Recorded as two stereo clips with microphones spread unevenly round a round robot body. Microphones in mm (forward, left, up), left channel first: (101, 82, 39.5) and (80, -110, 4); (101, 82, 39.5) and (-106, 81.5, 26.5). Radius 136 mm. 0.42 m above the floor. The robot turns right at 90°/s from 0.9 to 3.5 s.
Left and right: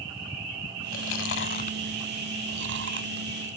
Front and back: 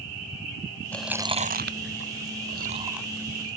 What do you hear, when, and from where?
0.9 s chewing: 80° left; by 3.6 s 45° right